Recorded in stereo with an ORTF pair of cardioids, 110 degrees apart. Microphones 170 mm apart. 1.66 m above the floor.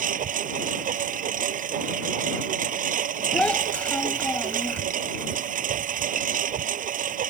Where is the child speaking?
5° left.